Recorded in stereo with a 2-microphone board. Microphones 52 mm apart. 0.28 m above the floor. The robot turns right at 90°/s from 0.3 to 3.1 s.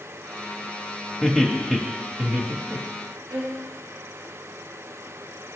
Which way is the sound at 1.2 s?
20° left (ahead or behind).